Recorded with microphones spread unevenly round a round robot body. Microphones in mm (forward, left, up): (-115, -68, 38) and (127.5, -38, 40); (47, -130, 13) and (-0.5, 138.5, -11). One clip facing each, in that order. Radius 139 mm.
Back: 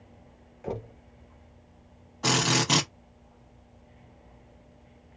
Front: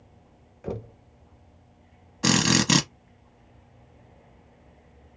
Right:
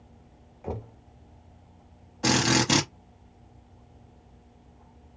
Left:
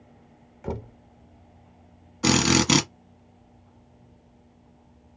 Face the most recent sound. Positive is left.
turn(degrees=45)